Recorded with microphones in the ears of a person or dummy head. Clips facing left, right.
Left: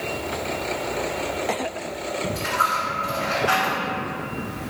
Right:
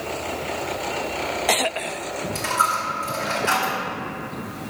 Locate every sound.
2.4 s a dropped coin: 50° right (ahead or behind), 1.8 m